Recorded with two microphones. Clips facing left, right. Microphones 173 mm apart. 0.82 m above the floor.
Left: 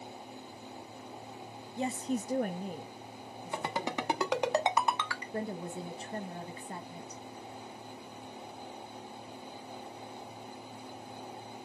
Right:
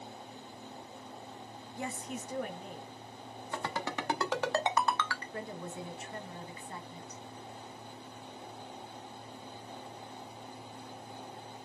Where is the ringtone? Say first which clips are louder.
Left 2 dB; 15° left (ahead or behind), 0.7 m.